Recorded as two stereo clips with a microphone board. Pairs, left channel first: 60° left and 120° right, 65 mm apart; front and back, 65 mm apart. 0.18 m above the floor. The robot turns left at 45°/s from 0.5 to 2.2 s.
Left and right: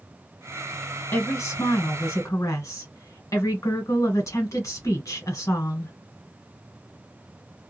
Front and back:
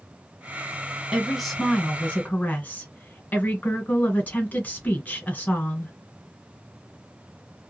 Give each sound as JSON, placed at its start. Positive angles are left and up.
{"t": 1.1, "sound": "a woman speaking", "azimuth_deg": 105, "distance_m": 1.7}